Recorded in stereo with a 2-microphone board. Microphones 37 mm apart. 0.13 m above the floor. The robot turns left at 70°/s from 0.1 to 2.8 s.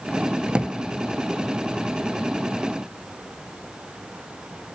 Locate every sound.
0.5 s a drawer: 25° right (ahead or behind), 0.5 m; by 0.8 s 45° right (ahead or behind), 0.5 m